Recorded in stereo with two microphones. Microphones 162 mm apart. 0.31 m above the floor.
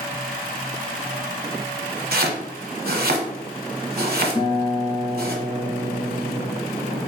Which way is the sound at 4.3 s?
40° left (ahead or behind).